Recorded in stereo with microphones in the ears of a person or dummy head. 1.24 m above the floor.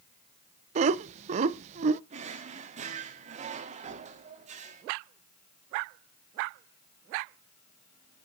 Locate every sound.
0.8 s laughter: 40° right (ahead or behind), 0.7 m
2.1 s a drawer: 35° right (ahead or behind), 1.3 m